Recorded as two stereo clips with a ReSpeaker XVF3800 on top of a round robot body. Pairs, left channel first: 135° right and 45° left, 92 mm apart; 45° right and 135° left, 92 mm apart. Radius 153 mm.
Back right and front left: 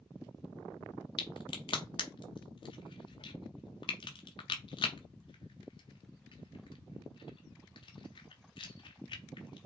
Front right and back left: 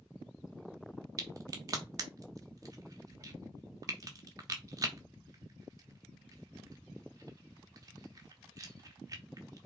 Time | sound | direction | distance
1.2 | a crack | 170° right | 0.8 m